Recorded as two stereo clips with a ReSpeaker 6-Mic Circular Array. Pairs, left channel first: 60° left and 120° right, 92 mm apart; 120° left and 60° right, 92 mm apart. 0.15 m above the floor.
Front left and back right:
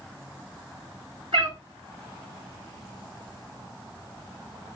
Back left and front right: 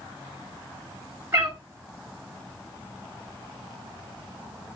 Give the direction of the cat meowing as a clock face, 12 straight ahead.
4 o'clock.